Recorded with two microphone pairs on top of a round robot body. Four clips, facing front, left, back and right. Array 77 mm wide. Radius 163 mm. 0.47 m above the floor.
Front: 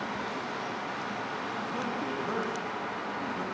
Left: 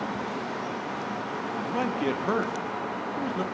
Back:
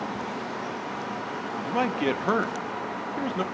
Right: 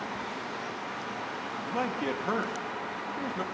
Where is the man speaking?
175° left, 1.1 m.